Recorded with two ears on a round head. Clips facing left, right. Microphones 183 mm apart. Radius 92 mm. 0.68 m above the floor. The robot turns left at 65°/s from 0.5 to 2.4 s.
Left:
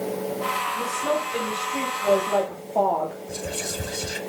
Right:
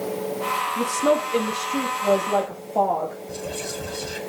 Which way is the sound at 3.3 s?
20° left (ahead or behind).